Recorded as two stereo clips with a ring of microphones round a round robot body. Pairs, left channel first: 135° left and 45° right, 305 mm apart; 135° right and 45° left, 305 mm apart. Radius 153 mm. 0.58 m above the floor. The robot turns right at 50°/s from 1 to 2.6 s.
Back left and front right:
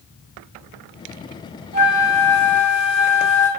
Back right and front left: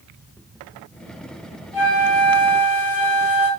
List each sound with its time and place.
1.7 s a flute: 115° left, 1.5 m; by 3.5 s 155° left, 1.5 m